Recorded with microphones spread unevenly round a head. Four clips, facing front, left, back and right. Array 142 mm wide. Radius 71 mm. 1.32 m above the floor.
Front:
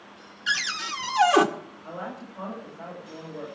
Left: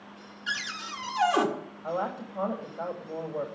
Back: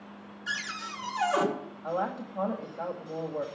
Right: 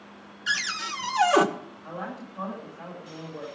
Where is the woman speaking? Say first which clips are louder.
Left 6 dB, back 6 dB; 145° left, 2.5 m.